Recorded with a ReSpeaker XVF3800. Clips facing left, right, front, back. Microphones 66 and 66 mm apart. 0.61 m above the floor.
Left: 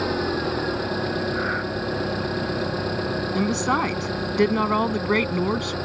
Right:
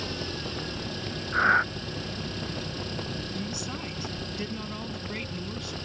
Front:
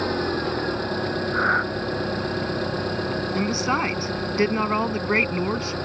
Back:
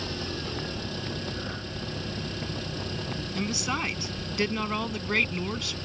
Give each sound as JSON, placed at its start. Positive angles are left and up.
{"t": 0.0, "sound": "an engine running", "azimuth_deg": 45}
{"t": 1.3, "sound": "breathing", "azimuth_deg": -30}
{"t": 3.4, "sound": "a woman speaking", "azimuth_deg": 60}